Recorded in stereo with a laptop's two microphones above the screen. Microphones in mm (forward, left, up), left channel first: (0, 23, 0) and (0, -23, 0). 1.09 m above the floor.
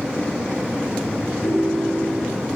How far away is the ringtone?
About 4.5 m.